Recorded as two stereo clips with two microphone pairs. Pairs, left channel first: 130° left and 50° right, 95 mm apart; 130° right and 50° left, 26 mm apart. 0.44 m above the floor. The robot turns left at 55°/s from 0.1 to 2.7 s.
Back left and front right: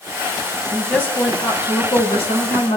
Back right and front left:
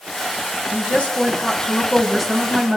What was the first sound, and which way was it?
A woman speaking, 140° right.